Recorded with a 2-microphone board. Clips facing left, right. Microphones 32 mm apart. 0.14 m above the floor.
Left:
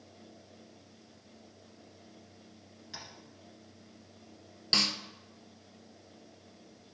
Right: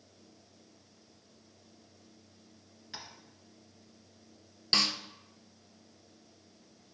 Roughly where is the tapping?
Centre.